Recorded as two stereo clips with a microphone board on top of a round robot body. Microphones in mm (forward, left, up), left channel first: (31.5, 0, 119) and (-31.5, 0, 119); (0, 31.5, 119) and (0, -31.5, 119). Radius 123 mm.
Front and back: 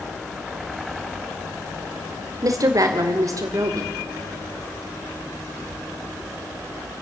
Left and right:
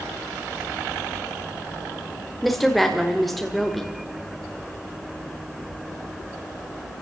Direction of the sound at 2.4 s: Straight behind.